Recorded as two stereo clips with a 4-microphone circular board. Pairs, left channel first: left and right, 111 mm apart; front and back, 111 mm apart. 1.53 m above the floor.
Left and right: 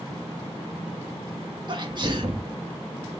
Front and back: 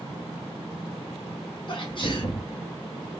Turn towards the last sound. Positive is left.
turn(degrees=-45)